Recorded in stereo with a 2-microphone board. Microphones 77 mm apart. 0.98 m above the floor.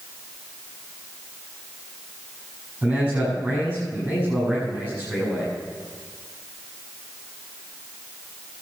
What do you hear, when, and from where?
2.8 s a man speaking: 15° right (ahead or behind), 7.5 m